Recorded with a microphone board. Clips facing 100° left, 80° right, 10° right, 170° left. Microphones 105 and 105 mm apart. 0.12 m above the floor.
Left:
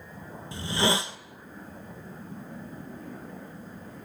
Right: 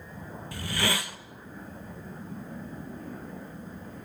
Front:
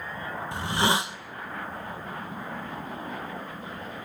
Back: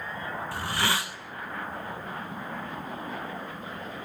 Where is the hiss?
45° left, 0.8 m.